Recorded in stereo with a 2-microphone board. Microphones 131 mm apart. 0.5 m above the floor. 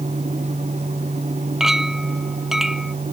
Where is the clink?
5° right (ahead or behind).